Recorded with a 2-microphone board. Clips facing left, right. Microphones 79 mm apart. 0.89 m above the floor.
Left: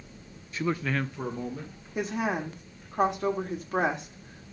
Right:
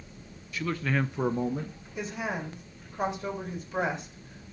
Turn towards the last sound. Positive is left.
turn(degrees=65)  # may be behind; listen again after turning